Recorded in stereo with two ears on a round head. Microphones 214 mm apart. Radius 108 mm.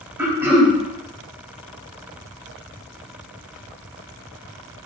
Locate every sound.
0.2 s throat clearing: 10° right (ahead or behind), 1.0 m